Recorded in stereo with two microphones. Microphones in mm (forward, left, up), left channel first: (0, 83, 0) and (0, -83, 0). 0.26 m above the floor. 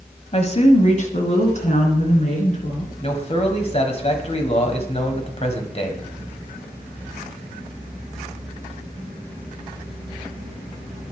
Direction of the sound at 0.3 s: 40° left (ahead or behind).